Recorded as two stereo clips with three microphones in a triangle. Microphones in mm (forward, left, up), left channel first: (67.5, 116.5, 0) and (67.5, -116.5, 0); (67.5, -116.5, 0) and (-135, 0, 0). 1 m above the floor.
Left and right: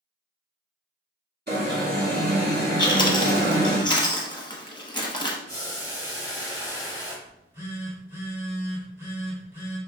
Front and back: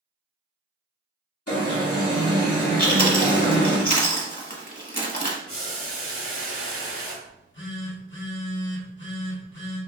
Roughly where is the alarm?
Ahead right.